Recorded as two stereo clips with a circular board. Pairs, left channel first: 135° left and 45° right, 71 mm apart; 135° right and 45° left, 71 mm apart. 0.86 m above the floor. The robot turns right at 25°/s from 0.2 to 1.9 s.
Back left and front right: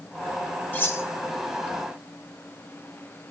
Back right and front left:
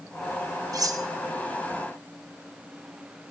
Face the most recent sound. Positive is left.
turn(degrees=105)